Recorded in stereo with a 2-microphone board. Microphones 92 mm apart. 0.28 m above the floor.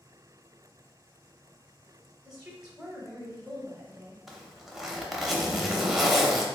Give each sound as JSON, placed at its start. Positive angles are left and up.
{"t": 2.2, "sound": "a woman speaking", "side_deg": -10, "distance_m": 1.2}
{"t": 4.3, "sound": "a zipper", "side_deg": -5, "distance_m": 0.6}